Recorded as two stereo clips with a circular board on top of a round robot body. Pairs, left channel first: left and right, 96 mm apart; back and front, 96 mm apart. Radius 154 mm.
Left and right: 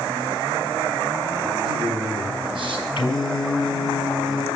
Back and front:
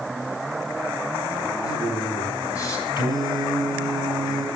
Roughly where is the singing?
Behind left.